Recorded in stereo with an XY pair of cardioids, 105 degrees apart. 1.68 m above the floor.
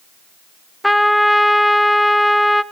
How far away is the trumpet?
About 0.8 m.